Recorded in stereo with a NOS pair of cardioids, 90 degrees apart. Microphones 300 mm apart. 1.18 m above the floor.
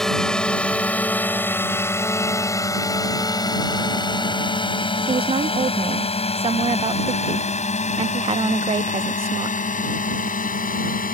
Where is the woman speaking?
20° right.